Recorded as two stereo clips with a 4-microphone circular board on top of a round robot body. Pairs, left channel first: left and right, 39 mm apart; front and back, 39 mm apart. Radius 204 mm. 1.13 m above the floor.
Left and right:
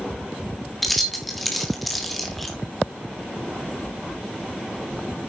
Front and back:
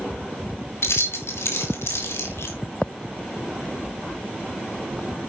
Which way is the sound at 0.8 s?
Straight ahead.